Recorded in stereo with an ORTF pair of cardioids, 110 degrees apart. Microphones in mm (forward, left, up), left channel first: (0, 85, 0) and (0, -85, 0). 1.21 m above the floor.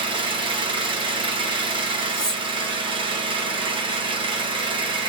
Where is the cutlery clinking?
15° right, 1.6 m.